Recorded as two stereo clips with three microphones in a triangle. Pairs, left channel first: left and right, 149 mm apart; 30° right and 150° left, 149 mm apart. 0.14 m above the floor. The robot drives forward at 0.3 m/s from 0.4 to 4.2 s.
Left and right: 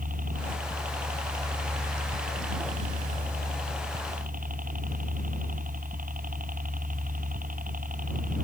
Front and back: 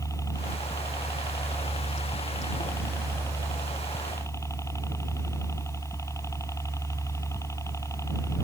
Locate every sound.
0.0 s a helicopter: 100° right